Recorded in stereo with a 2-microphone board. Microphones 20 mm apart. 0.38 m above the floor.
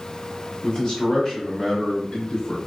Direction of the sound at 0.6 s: 25° left (ahead or behind).